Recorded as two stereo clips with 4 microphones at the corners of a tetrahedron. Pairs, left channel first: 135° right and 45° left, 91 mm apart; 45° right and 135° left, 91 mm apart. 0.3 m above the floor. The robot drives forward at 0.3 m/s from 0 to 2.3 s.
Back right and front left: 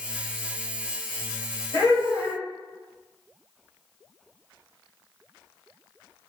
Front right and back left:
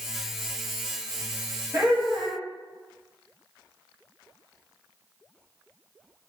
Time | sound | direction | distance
1.7 | laughter | 160° right | 1.3 m